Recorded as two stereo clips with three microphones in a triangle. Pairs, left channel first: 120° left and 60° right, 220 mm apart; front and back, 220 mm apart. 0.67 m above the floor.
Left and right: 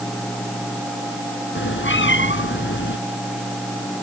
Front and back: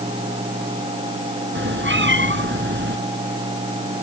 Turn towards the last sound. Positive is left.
turn(degrees=150)